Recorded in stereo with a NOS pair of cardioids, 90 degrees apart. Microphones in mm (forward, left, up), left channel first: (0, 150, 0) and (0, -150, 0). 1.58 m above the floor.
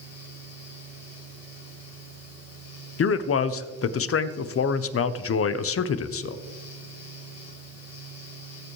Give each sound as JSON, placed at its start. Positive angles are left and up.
{"t": 0.0, "sound": "a fan", "azimuth_deg": 55, "distance_m": 3.0}
{"t": 3.0, "sound": "a man speaking", "azimuth_deg": 45, "distance_m": 0.9}